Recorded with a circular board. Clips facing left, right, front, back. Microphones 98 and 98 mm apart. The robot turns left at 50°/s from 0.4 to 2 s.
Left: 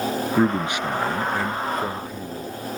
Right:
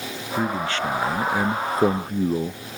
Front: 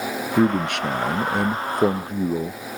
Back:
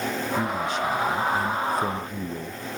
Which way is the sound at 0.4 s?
30° left.